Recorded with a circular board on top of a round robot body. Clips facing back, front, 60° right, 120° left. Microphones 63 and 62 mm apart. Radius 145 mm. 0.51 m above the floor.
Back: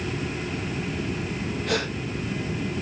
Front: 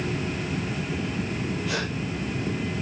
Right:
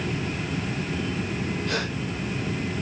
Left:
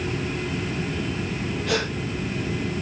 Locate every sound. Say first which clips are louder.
1.7 s a gasp: back 6 dB, left 6 dB; 140° left, 5 m